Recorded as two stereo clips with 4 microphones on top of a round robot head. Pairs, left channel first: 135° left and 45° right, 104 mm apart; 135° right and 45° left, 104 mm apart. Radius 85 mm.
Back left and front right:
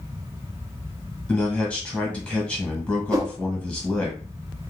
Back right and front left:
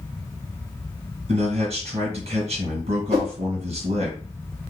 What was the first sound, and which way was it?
A man speaking, 55° left.